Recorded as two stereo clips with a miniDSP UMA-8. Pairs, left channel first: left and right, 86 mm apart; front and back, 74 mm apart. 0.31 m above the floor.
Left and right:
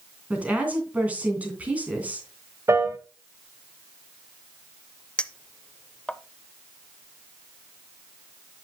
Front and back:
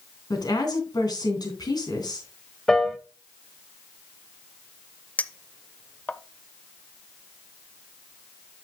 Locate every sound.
0.3 s a woman speaking: 20° right, 3 m
2.7 s a piano: 75° right, 1.0 m
5.2 s a clink: 30° left, 0.5 m